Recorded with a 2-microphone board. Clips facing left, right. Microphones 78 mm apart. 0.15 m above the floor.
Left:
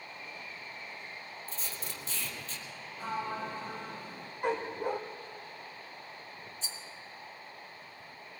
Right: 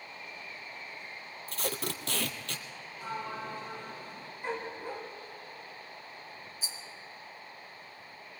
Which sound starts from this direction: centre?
A rattle, at 6.6 s.